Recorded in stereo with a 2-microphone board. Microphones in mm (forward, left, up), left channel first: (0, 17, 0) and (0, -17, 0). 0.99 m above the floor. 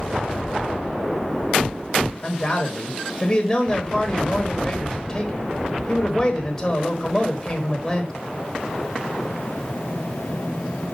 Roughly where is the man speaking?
Centre.